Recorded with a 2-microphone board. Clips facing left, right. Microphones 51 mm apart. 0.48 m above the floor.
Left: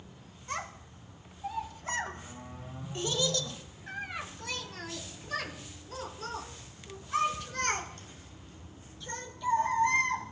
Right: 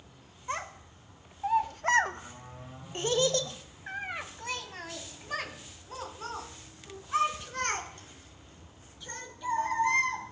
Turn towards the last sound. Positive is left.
turn(degrees=-20)  # may be behind; listen again after turning